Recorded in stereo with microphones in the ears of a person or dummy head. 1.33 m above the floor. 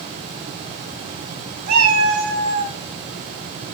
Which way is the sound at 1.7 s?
55° right (ahead or behind).